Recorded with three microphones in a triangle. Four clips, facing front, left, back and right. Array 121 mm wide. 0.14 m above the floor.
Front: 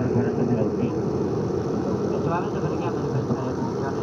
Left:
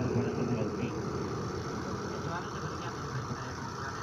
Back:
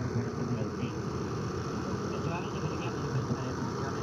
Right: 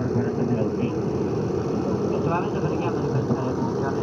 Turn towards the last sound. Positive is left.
turn(degrees=-55)